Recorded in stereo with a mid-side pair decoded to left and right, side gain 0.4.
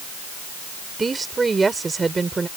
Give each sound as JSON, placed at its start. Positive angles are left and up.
{"t": 1.0, "sound": "a woman speaking", "azimuth_deg": -30}